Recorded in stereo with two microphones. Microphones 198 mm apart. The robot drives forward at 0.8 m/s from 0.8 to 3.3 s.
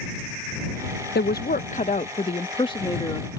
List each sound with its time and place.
1.1 s a woman speaking: 60° left (ahead or behind); by 3.4 s 20° left (ahead or behind)